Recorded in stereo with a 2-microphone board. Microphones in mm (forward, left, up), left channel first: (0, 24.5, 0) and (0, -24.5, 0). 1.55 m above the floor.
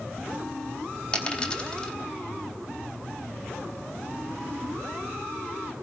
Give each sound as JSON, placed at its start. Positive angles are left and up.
{"t": 1.1, "sound": "a dropped coin", "side_deg": 25, "distance_m": 3.5}